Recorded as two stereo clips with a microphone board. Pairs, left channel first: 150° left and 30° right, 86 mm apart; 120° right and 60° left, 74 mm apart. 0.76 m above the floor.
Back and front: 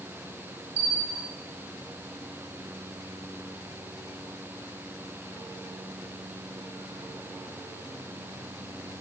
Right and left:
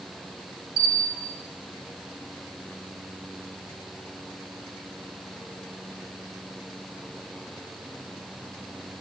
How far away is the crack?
No crack in this recording.